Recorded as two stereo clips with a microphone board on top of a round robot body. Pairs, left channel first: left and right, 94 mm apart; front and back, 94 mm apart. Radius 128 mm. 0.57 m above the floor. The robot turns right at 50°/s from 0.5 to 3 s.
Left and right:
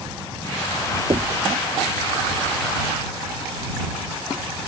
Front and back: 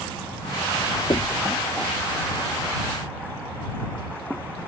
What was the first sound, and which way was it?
Knocking, 50° right.